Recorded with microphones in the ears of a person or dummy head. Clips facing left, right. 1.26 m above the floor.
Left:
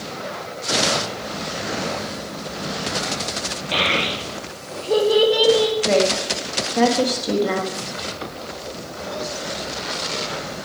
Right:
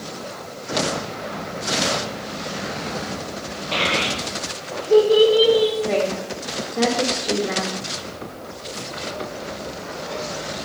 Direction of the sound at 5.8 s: 70° left (ahead or behind).